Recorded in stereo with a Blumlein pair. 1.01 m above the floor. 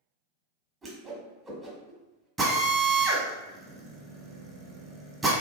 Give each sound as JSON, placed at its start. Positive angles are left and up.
{"t": 0.8, "sound": "a whoosh", "azimuth_deg": -15, "distance_m": 1.2}
{"t": 2.4, "sound": "a drill", "azimuth_deg": -15, "distance_m": 1.2}